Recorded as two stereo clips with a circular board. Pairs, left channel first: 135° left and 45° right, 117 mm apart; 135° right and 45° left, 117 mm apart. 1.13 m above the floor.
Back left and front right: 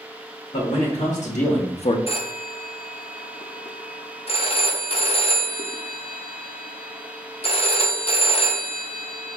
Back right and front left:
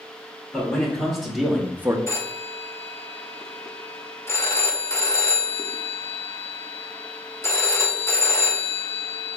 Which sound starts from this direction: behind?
A phone ringing, at 2.1 s.